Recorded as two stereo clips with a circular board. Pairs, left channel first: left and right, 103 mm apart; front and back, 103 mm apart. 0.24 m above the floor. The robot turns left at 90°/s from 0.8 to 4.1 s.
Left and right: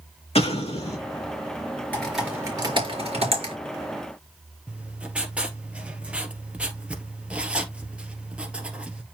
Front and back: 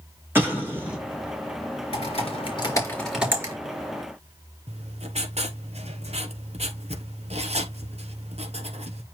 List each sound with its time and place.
0.3 s an explosion: 105° left, 5 m; by 1.0 s 90° left, 5 m
1.9 s typing on a keyboard: 15° left, 4.5 m; by 3.5 s 130° right, 4.5 m
4.7 s writing: 170° right, 1.6 m